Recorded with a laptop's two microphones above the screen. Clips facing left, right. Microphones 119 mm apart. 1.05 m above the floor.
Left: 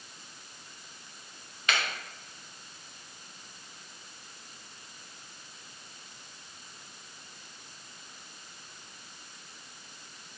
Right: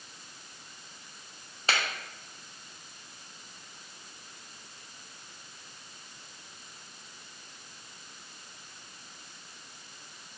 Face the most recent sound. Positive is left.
turn(degrees=-35)  # may be behind; listen again after turning